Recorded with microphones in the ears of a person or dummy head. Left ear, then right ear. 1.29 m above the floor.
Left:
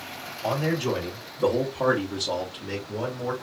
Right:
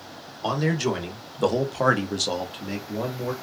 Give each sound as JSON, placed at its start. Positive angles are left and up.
{"t": 0.4, "sound": "a man speaking", "side_deg": -40, "distance_m": 1.3}